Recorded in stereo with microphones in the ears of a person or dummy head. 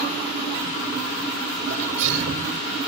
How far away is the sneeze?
About 4.5 m.